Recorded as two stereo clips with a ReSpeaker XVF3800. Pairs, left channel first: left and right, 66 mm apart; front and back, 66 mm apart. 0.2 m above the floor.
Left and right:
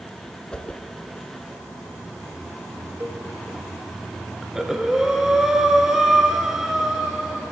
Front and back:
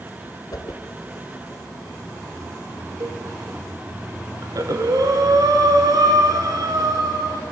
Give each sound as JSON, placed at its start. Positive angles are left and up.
{"t": 0.5, "sound": "a whoosh", "azimuth_deg": 15, "distance_m": 0.7}
{"t": 3.0, "sound": "a cowbell", "azimuth_deg": -145, "distance_m": 0.7}
{"t": 4.4, "sound": "breathing", "azimuth_deg": -170, "distance_m": 0.7}